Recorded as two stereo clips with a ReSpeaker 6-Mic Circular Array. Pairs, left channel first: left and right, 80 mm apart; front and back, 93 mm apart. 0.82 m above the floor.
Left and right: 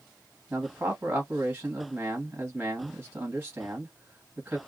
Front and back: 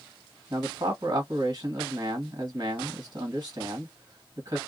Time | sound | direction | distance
0.5 | a man speaking | 160° right | 1.5 m